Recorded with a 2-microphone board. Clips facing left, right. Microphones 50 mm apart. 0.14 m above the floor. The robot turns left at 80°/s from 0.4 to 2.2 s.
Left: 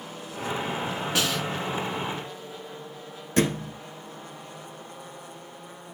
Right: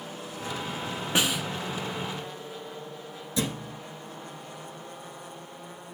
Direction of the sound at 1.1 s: 20° right (ahead or behind).